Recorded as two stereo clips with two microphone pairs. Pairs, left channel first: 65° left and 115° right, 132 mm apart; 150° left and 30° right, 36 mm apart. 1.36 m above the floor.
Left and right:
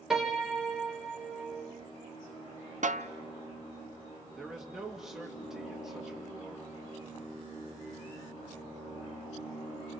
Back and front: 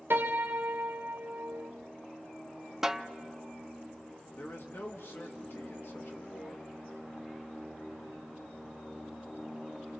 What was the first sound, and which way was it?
A piano, 25° right.